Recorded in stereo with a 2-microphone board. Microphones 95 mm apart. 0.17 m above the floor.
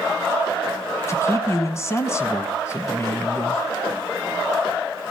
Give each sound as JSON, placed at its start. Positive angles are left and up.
{"t": 1.1, "sound": "a man speaking", "side_deg": 30, "distance_m": 1.2}